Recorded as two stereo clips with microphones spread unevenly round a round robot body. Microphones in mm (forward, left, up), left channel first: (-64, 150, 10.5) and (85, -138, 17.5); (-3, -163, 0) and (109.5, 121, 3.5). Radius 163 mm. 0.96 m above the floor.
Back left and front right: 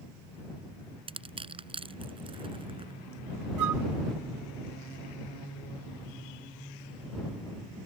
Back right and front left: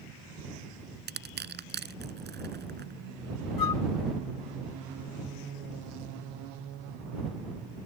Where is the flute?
100° right.